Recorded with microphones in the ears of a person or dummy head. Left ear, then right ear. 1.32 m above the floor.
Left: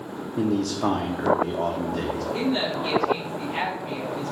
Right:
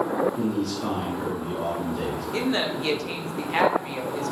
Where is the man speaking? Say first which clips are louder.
Left 2 dB; 55° left (ahead or behind), 0.6 m.